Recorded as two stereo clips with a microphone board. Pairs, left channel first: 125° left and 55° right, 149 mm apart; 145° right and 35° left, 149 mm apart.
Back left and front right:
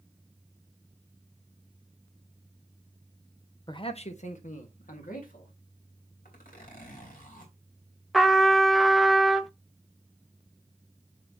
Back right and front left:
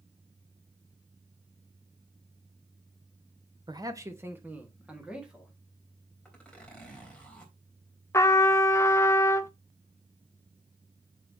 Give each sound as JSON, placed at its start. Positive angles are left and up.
{"t": 3.7, "sound": "a man speaking", "azimuth_deg": 80, "distance_m": 0.9}
{"t": 6.2, "sound": "a zipper", "azimuth_deg": 130, "distance_m": 3.0}
{"t": 8.1, "sound": "a trumpet", "azimuth_deg": -145, "distance_m": 0.6}